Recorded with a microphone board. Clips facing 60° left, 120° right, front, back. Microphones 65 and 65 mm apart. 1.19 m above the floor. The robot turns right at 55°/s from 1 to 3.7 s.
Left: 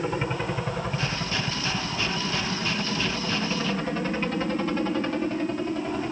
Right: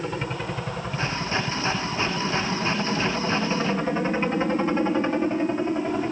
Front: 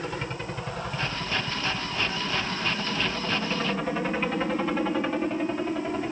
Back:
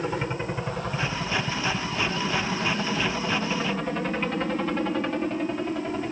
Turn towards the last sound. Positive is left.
turn(degrees=-80)